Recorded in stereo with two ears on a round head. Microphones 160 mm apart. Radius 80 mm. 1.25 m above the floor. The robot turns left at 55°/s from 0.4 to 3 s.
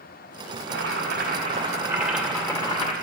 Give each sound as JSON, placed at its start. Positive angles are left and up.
{"t": 0.6, "sound": "boiling", "azimuth_deg": -90, "distance_m": 2.0}